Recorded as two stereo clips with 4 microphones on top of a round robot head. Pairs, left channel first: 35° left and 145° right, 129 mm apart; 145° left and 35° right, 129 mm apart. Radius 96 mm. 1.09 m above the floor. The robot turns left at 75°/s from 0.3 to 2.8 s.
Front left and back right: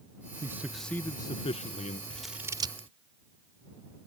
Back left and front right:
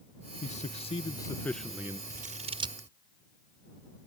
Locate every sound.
0.4 s a man speaking: 150° left; by 2.0 s 30° left
2.1 s scissors: 45° right; by 2.9 s 100° right